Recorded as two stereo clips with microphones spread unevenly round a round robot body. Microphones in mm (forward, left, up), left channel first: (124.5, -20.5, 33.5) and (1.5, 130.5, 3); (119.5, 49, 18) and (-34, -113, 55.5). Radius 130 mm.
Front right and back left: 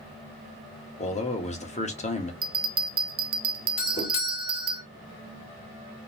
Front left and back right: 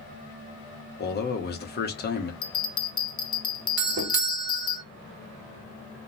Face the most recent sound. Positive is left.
turn(degrees=-110)